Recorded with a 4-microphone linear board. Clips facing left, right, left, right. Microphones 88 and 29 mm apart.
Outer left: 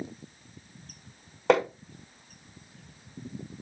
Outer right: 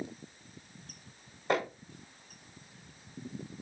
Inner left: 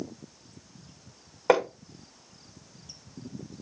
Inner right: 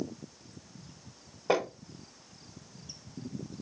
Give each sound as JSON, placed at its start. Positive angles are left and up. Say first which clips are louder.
{"t": 1.5, "sound": "hammering", "louder": "outer left 8 dB, inner left 6 dB", "side_deg": 75, "distance_m": 5.0}